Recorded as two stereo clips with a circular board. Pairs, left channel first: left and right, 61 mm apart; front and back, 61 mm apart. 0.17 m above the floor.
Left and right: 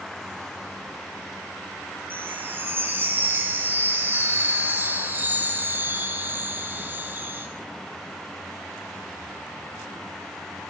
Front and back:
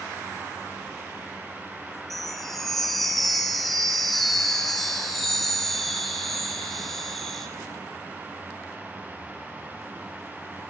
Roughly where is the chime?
Right.